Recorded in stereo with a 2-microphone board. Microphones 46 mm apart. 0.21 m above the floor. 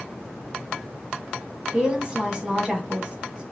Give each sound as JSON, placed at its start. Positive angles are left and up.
{"t": 1.7, "sound": "a woman speaking", "side_deg": -20, "distance_m": 1.2}